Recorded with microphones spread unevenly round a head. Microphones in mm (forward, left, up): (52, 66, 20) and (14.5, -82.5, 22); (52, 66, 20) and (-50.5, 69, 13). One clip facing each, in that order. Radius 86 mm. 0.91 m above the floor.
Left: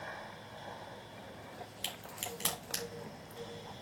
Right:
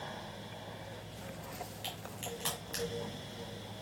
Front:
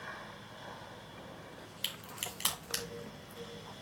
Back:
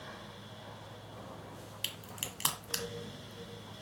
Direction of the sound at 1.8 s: 135° left.